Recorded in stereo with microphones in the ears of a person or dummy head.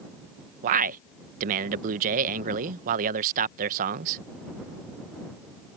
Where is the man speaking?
45° right (ahead or behind).